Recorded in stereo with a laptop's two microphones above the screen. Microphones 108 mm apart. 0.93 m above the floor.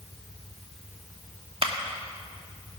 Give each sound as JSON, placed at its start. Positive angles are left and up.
{"t": 1.6, "sound": "a clap", "side_deg": -65, "distance_m": 1.3}